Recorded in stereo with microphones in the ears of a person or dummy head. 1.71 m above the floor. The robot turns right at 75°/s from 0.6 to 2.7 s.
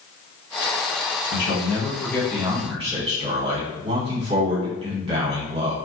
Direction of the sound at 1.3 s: 105° left.